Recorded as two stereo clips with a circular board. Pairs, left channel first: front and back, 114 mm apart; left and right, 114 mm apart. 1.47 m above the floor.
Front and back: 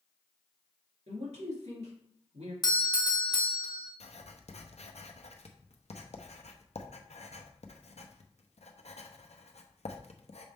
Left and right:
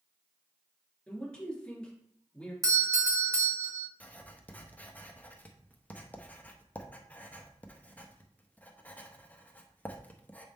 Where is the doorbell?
40° right, 1.2 m.